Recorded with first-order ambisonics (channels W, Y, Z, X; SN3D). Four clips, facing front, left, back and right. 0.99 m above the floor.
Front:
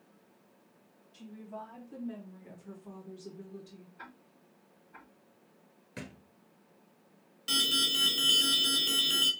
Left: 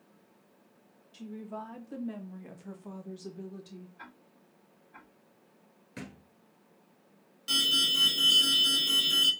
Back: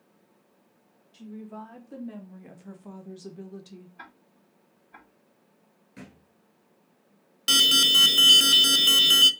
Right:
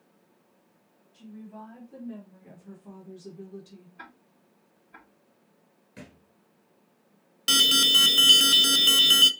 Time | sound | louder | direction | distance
1.1 | a woman speaking | left 3 dB, back 4 dB | 115° left | 2.5 m
4.0 | ticking | right 3 dB, back 3 dB | 150° right | 3 m
6.0 | a thud | left 3 dB, front 2 dB | 35° left | 1.1 m
7.5 | an alarm | right 7 dB, back 9 dB | 130° right | 0.6 m